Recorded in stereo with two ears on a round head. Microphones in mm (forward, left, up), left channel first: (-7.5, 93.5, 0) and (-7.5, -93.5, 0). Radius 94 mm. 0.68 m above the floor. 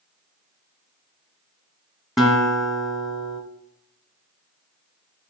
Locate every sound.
2.2 s a guitar: centre (ahead or behind), 1.5 m